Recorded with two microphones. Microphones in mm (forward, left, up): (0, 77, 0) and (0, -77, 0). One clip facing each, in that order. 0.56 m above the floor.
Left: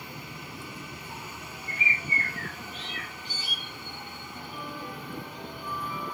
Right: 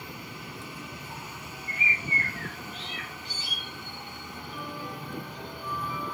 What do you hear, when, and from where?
1.7 s a bird: 35° left (ahead or behind), 2 m